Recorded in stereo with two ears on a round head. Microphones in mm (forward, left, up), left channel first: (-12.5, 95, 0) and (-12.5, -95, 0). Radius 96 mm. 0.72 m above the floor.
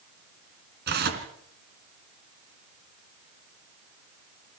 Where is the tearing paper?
50° right (ahead or behind), 3 m.